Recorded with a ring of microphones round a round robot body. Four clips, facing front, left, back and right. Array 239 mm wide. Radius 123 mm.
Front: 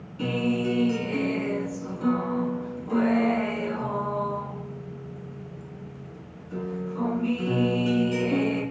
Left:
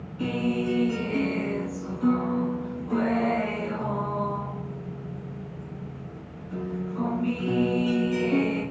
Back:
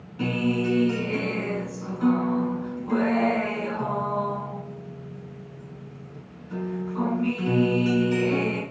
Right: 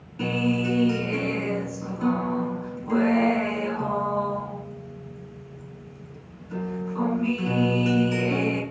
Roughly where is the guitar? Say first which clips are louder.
Right 2 dB, back 1 dB; behind right.